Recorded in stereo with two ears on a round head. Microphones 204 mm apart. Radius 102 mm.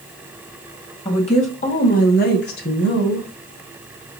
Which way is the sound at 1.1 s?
25° left (ahead or behind).